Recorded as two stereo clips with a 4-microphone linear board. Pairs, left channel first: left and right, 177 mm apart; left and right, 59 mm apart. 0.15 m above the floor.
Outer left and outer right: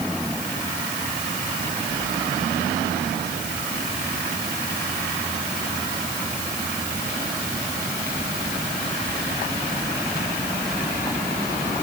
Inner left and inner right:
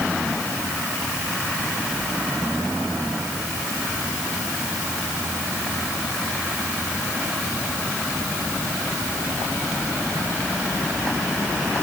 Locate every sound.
Only background noise.